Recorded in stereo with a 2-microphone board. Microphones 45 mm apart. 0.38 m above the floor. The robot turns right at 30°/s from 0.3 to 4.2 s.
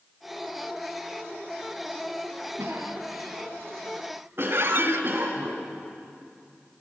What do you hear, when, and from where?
2.6 s a cough: 65° right (ahead or behind), 4 m; by 5.5 s 55° right (ahead or behind), 4 m
4.5 s a squeak: 55° right (ahead or behind), 1.0 m